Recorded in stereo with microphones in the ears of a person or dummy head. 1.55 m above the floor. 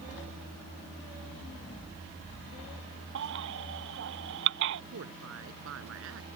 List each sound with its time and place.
3.1 s a baby crying: 70° right (ahead or behind)
4.9 s a woman speaking: 75° right (ahead or behind)